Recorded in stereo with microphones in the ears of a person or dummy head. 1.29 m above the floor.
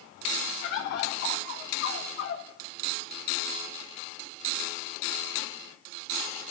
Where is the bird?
55° left (ahead or behind), 1.9 m.